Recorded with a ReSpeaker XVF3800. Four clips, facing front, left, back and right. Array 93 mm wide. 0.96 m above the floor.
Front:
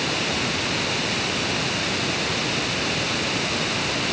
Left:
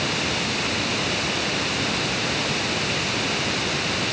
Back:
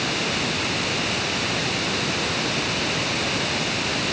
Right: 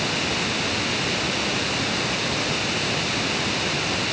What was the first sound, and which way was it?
Only background noise.